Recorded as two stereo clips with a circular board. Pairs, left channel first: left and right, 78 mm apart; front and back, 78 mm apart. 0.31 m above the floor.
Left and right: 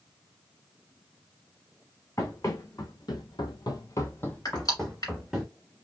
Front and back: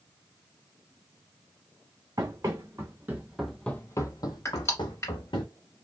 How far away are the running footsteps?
About 1.4 m.